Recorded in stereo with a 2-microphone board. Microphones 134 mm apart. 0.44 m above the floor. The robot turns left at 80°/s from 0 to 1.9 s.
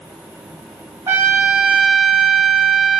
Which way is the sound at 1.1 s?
20° right (ahead or behind).